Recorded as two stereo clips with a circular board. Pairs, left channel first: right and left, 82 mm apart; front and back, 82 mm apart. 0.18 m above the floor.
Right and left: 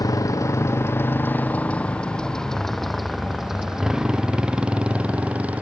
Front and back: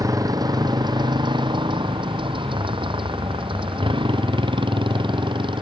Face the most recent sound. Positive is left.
turn(degrees=165)